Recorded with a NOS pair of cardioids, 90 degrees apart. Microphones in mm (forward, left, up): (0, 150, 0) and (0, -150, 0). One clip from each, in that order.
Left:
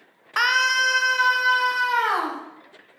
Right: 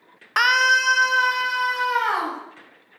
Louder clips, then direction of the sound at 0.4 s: Right 2 dB; 15° right.